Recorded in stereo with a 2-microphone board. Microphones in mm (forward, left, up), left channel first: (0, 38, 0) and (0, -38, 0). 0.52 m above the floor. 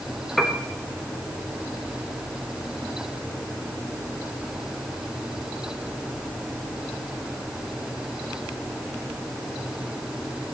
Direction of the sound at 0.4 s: Centre (ahead or behind).